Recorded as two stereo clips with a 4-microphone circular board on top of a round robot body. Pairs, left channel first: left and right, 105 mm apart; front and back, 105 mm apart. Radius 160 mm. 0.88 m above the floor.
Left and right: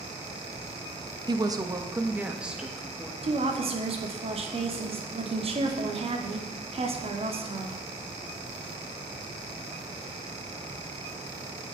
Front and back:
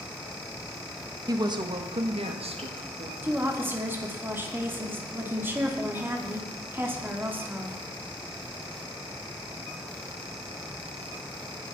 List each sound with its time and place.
1.3 s a woman speaking: 130° right, 1.7 m; by 3.1 s 175° left, 2.5 m
3.2 s a woman speaking: 110° right, 2.5 m